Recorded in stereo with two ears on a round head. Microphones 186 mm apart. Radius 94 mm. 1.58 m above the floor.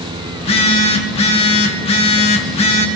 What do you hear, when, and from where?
0.3 s a phone buzzing: 30° left (ahead or behind), 1.2 m